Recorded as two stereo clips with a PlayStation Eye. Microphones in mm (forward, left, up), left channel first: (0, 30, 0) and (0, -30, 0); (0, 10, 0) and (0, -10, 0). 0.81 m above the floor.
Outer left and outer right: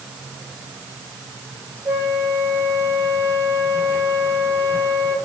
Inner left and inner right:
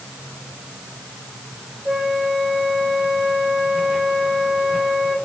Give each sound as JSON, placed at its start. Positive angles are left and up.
{"t": 1.9, "sound": "a flute", "side_deg": -45, "distance_m": 2.5}